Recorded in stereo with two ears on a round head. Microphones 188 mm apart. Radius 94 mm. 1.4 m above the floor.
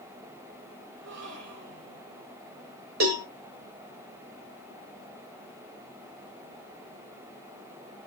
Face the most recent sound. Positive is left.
turn(degrees=-75)  # may be behind; listen again after turning